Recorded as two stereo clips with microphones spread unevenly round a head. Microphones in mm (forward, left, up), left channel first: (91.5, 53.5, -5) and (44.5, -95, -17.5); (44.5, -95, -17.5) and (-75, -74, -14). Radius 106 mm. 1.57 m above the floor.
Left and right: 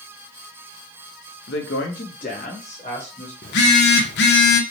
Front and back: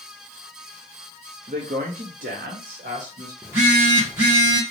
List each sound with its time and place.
1.5 s a woman speaking: 110° left, 0.6 m; by 3.3 s 140° left, 1.5 m
3.4 s a phone buzzing: 90° left, 0.7 m